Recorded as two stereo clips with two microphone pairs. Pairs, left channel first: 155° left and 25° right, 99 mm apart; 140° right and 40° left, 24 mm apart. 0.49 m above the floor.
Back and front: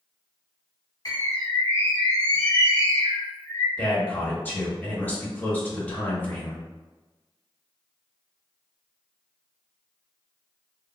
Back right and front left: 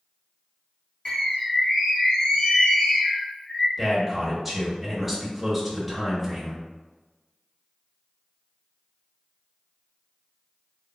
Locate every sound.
1.1 s a bird: straight behind, 1.7 m
3.8 s a man speaking: 110° left, 0.9 m